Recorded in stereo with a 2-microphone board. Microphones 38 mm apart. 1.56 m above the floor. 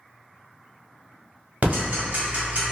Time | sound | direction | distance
1.6 | ticking | 45° right (ahead or behind) | 1.1 m